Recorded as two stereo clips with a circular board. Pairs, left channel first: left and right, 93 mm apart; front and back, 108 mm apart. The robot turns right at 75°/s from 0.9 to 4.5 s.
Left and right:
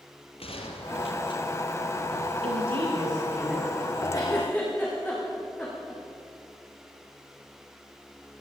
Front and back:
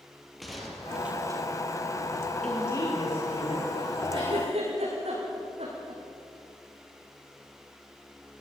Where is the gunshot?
90° left, 3 m; by 1.4 s 130° left, 3 m.